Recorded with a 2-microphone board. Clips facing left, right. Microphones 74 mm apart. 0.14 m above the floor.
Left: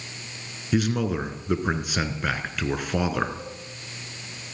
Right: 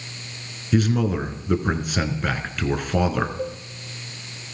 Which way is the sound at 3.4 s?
45° right (ahead or behind).